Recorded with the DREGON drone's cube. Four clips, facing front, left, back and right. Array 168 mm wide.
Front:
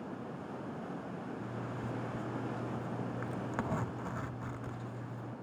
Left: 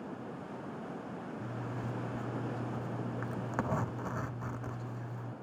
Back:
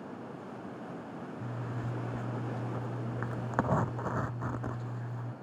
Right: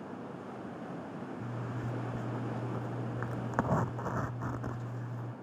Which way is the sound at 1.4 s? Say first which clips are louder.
Even, back 1 dB; 150° right.